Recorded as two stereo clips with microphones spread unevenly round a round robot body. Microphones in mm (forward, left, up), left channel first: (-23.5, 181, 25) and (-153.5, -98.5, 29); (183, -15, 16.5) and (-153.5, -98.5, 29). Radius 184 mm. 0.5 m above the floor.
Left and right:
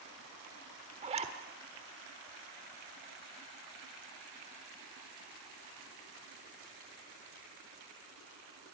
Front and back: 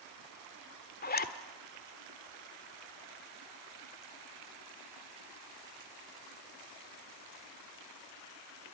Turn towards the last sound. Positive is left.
turn(degrees=-45)